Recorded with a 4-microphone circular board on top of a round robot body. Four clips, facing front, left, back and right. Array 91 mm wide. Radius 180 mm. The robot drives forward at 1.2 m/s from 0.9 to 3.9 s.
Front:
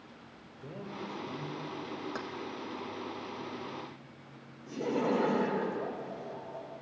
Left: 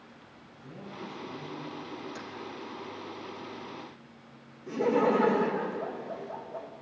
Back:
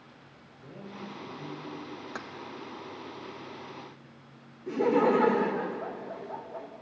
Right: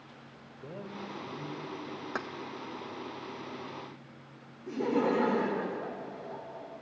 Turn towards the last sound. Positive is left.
turn(degrees=175)